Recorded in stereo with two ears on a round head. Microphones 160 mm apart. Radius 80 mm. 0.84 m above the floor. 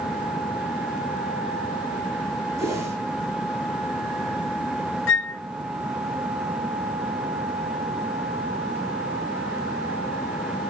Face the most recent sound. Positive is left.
turn(degrees=75)  # may be behind; listen again after turning